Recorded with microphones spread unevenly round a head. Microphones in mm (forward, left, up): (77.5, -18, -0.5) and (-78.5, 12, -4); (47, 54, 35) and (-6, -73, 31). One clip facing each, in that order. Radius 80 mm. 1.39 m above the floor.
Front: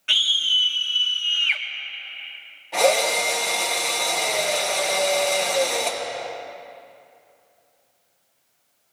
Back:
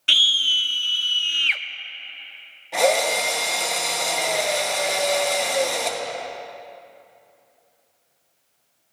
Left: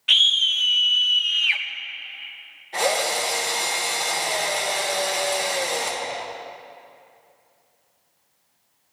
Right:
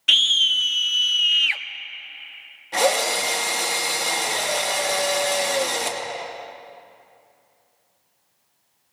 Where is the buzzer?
No buzzer in this recording.